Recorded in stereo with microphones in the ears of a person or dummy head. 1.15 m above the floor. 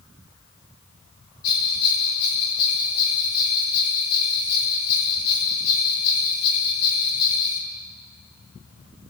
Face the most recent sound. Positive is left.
turn(degrees=55)  # may be behind; listen again after turning